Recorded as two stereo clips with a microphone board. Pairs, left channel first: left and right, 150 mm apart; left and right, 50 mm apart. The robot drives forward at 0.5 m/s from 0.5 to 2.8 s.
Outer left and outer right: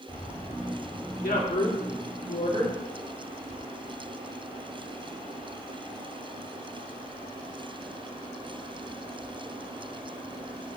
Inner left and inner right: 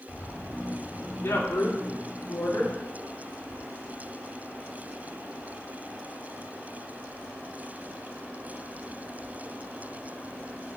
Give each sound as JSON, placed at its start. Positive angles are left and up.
{"t": 1.2, "sound": "a woman speaking", "side_deg": 75, "distance_m": 1.9}